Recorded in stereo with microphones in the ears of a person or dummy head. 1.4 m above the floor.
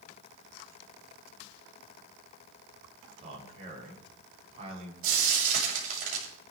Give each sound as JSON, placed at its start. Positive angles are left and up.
{"t": 3.2, "sound": "a man speaking", "side_deg": -40, "distance_m": 8.0}
{"t": 5.0, "sound": "frying", "side_deg": -55, "distance_m": 8.5}